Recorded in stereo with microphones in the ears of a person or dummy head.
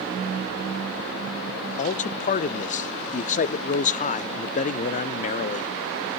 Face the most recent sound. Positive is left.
turn(degrees=35)  # may be behind; listen again after turning